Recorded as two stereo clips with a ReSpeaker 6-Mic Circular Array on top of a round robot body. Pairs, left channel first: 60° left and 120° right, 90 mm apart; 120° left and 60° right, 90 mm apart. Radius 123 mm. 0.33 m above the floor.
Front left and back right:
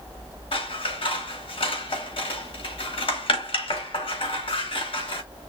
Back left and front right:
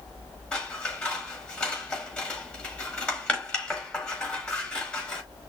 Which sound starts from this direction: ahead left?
Scissors, at 0.5 s.